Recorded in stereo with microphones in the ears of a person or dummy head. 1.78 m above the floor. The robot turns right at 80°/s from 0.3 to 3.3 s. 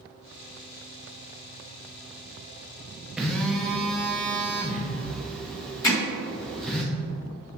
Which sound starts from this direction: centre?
A phone buzzing, at 3.2 s.